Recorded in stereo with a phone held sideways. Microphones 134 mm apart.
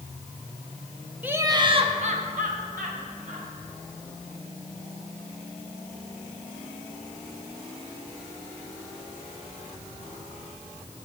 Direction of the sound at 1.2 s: 10° right (ahead or behind).